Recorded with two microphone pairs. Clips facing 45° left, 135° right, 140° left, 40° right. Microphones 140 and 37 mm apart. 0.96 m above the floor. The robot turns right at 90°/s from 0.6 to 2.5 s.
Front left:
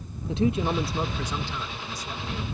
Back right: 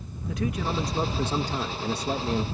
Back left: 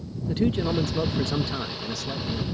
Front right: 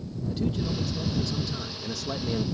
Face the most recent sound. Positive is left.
turn(degrees=-80)